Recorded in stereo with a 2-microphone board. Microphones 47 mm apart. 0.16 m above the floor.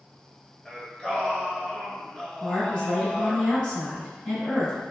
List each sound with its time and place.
0.7 s singing: 15° left (ahead or behind), 0.7 m
2.4 s a woman speaking: 20° left (ahead or behind), 1.1 m